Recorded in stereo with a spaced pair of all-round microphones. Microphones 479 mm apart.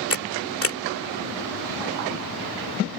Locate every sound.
0.1 s a camera shutter: 30° left (ahead or behind)